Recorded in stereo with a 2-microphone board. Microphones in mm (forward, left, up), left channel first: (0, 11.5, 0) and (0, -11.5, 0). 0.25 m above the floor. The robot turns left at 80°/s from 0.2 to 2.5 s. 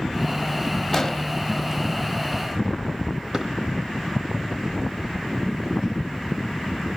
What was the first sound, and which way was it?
An explosion, 15° left (ahead or behind).